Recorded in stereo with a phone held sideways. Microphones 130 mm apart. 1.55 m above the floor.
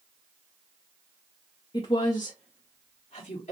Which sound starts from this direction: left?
A woman speaking, at 1.7 s.